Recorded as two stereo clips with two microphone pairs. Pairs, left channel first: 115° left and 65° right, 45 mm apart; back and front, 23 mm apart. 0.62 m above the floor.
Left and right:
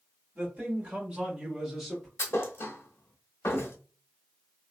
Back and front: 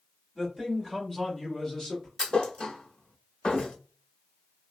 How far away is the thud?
About 0.5 m.